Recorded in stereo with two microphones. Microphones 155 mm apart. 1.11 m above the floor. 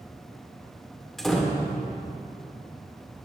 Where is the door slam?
Centre (ahead or behind), 2.5 m.